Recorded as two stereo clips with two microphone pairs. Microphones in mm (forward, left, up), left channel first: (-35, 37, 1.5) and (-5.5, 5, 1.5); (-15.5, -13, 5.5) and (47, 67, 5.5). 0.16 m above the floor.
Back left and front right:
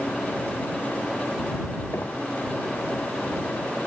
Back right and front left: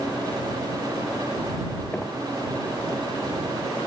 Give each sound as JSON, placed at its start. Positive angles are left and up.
{"t": 1.9, "sound": "knocking", "azimuth_deg": 155}